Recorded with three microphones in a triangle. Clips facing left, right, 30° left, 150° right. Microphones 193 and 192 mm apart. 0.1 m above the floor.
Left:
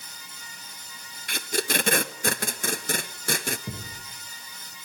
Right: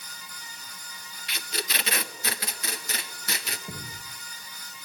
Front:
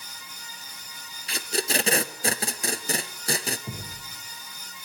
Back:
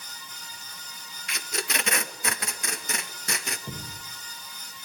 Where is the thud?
115° left, 9.5 m.